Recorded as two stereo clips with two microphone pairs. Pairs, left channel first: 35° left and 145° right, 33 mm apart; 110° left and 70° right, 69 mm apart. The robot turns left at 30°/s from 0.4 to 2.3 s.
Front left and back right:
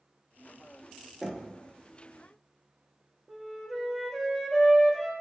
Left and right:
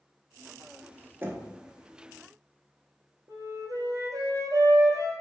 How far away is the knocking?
About 0.8 m.